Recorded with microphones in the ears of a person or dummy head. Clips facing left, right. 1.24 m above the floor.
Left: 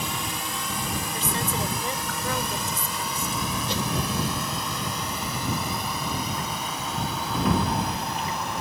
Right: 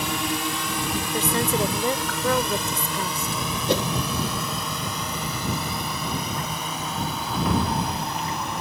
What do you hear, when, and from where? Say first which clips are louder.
0.0 s a drone: right 6 dB; 55° right (ahead or behind); by 8.6 s 70° right (ahead or behind)
1.1 s a woman speaking: right 8 dB; 55° right (ahead or behind)
3.7 s a whoosh: right 10 dB; 50° right (ahead or behind)